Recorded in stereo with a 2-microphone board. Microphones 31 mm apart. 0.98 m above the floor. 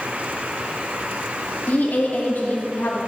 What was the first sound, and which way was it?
A woman speaking, 70° left (ahead or behind).